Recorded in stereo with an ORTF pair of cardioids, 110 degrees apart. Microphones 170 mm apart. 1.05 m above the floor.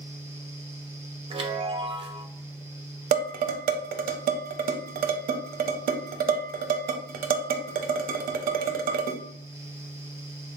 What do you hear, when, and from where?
0.0 s a fan: 15° right, 0.9 m
1.3 s a chime: 35° right, 0.7 m
3.1 s dishes clattering: 60° right, 0.6 m